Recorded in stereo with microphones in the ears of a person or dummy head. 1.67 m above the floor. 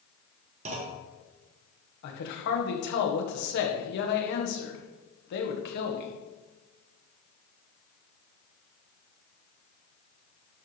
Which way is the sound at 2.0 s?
55° left (ahead or behind).